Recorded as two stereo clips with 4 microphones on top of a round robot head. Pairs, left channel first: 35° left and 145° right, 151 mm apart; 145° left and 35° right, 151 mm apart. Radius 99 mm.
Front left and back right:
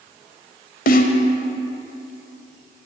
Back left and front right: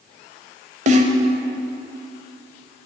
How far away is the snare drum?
About 0.9 m.